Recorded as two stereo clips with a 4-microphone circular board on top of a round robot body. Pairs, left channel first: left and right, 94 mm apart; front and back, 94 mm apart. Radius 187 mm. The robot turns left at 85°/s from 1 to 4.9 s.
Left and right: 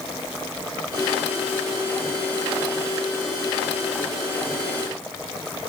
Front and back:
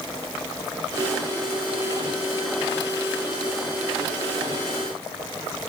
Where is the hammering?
No hammering in this recording.